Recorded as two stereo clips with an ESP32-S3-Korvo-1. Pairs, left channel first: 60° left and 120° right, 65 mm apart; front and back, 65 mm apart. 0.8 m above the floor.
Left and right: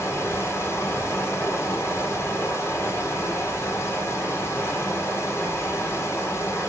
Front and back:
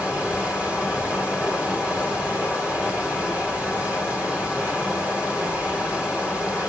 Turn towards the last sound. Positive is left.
turn(degrees=110)